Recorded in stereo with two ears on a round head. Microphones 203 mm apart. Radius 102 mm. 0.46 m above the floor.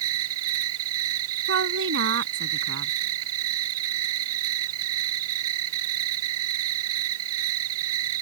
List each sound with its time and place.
0.0 s an insect: 70° right (ahead or behind)
1.5 s a woman speaking: 55° right (ahead or behind)